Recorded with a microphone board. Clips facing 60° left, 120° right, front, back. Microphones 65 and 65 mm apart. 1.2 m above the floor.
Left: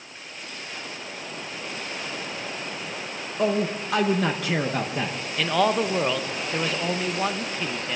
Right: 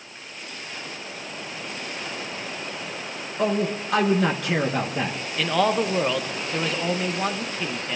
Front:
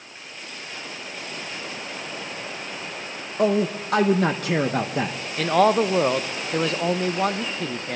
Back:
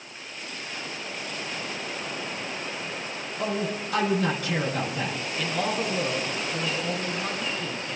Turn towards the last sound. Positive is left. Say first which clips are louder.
# even, front 11 dB
turn(degrees=-30)